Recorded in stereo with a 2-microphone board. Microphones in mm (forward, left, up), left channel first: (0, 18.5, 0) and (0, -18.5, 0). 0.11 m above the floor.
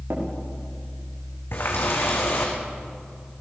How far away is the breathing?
I don't hear breathing.